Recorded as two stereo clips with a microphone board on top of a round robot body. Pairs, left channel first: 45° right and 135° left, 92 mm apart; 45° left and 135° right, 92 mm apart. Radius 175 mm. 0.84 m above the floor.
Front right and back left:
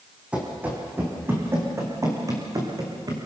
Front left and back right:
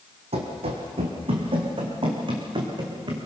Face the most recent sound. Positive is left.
turn(degrees=-175)